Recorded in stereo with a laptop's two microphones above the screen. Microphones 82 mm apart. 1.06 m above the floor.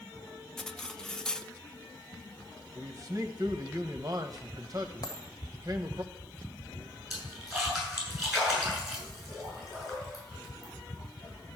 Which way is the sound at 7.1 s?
5° right (ahead or behind).